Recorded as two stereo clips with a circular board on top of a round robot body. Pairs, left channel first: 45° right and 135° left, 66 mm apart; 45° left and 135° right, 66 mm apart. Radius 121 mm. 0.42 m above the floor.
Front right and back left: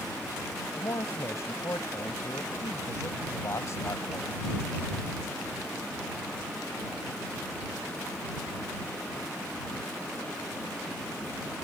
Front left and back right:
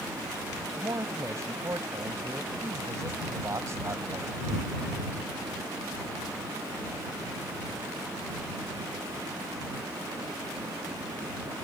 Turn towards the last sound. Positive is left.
turn(degrees=-90)